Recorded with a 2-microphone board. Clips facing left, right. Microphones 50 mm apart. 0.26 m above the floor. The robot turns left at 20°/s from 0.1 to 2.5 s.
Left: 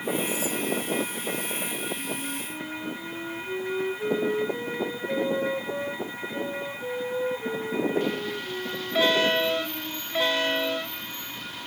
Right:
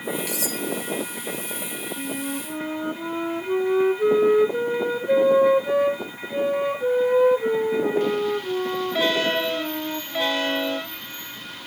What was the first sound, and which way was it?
Cutlery clinking, 80° right.